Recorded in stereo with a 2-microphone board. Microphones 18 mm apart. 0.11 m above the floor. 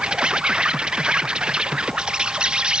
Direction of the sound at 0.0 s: 70° right (ahead or behind).